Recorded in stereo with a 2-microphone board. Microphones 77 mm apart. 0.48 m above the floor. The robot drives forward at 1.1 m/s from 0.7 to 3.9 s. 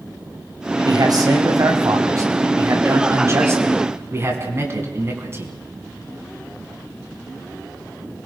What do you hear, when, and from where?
0.8 s a man speaking: 60° right (ahead or behind), 3.5 m; by 5.5 s 35° right (ahead or behind), 5.5 m